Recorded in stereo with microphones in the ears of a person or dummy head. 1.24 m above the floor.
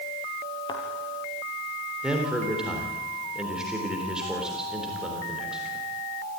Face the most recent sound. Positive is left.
turn(degrees=-5)  # may be behind; listen again after turning